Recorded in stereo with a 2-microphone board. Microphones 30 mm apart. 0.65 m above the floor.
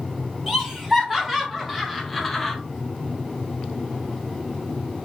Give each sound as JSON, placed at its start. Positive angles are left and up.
{"t": 0.5, "sound": "laughter", "side_deg": -20, "distance_m": 3.0}